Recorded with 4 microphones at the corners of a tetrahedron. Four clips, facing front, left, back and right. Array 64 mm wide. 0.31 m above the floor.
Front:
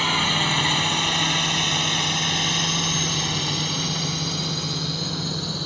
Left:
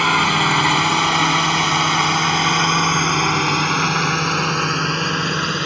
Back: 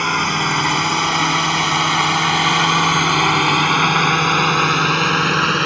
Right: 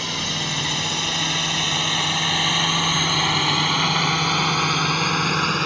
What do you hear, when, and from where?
0.0 s a drone: 115° left; by 5.7 s straight behind